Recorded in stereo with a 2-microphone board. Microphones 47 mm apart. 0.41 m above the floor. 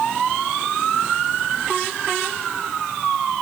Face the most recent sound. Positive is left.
No sound to turn to.